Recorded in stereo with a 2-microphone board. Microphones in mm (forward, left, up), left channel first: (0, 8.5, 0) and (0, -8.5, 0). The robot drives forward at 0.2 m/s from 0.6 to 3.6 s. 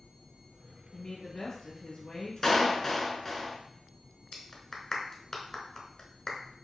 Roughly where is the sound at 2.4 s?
Centre.